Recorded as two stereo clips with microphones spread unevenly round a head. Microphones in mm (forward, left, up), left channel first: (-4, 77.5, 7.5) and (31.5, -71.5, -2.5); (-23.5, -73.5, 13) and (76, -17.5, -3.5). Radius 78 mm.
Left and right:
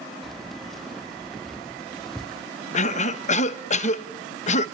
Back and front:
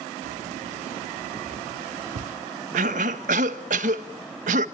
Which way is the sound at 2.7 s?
60° left.